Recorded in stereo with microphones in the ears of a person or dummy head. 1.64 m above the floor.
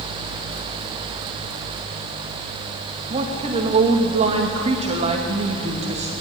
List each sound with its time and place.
3.1 s a woman speaking: 35° right (ahead or behind), 2.5 m